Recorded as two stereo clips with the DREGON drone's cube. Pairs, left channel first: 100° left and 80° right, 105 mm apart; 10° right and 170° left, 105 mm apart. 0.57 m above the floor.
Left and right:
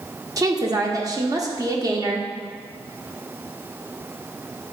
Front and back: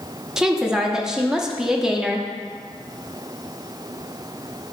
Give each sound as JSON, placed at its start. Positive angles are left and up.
{"t": 0.4, "sound": "a woman speaking", "azimuth_deg": -110, "distance_m": 0.8}